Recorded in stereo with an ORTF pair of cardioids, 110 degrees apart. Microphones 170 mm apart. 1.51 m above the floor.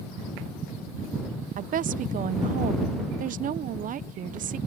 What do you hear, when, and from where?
1.6 s a woman speaking: 55° right